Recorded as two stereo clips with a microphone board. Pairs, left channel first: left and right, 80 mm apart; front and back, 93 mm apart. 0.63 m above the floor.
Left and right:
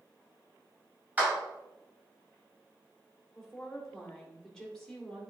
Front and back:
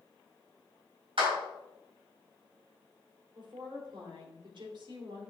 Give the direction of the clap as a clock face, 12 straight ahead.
5 o'clock.